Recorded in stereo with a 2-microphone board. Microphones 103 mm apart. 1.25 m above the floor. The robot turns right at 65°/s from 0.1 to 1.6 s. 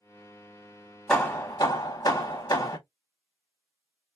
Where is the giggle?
I don't hear a giggle.